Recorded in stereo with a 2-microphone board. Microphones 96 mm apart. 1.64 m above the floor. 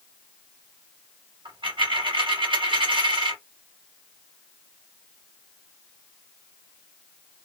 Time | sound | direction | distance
1.4 | a dropped coin | 60° right (ahead or behind) | 2.5 m